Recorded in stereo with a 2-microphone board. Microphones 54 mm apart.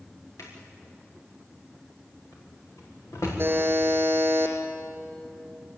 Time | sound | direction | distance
0.4 | a drawer | 70° left (ahead or behind) | 6.5 m
3.4 | a buzzer | 45° right (ahead or behind) | 3.5 m